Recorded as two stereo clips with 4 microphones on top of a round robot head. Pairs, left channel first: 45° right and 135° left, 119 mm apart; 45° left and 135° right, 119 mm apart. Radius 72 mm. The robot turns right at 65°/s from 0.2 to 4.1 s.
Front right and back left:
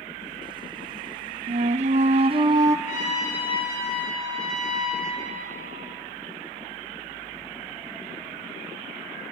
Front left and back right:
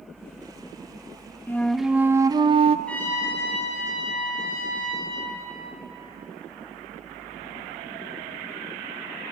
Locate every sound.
1.5 s a flute: 115° left, 0.6 m; by 2.8 s 160° right, 0.6 m
2.9 s a trumpet: 40° right, 4.5 m; by 5.3 s 40° left, 4.5 m